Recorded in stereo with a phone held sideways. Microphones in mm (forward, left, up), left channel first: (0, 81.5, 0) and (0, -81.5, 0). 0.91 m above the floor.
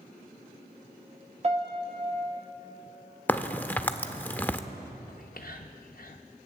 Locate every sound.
1.4 s a piano: 40° right (ahead or behind), 0.9 m
3.3 s a crack: 10° left (ahead or behind), 0.5 m
5.1 s whispering: 60° left (ahead or behind), 0.6 m